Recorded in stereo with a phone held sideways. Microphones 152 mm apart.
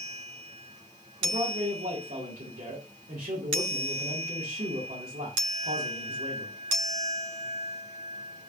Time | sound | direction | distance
1.2 | a man speaking | 70° right (ahead or behind) | 2 m